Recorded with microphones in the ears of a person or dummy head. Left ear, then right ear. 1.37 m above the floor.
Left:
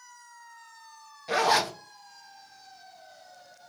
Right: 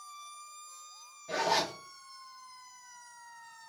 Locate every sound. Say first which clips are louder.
1.3 s a zipper: left 6 dB; 55° left (ahead or behind), 0.7 m